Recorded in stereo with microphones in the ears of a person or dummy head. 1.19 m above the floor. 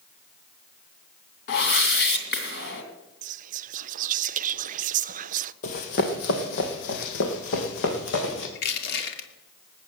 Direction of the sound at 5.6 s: 40° left (ahead or behind).